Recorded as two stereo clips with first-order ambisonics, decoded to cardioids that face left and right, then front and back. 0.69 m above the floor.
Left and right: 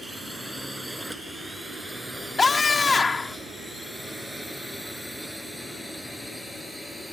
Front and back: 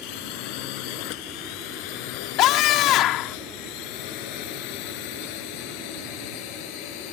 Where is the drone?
5° right; by 7.1 s straight ahead.